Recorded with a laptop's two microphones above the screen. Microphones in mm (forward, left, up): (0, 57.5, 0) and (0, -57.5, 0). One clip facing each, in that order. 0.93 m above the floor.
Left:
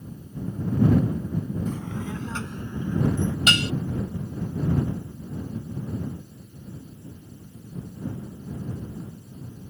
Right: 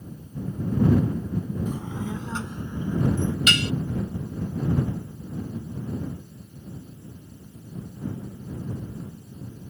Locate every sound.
1.7 s a child speaking: 15° right (ahead or behind)
3.5 s dishes clattering: 35° left (ahead or behind)